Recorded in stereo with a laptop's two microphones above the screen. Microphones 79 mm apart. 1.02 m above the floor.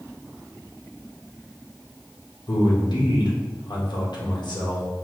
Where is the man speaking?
65° left (ahead or behind), 1.0 m.